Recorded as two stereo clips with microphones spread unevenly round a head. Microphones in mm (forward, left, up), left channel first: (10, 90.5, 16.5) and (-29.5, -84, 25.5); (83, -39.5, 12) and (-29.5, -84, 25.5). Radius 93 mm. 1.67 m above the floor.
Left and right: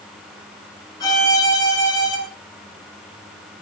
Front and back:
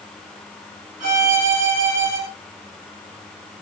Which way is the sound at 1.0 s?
150° left.